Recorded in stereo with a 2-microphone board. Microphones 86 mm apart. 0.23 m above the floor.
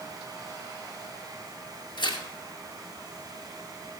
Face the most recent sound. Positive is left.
turn(degrees=60)  # may be behind; listen again after turning